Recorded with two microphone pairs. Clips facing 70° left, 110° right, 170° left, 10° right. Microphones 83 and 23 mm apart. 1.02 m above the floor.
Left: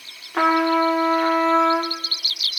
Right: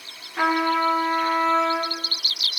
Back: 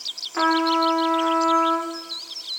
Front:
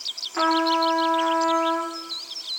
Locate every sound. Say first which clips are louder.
0.3 s a trumpet: left 3 dB, back 1 dB; 85° left, 1.8 m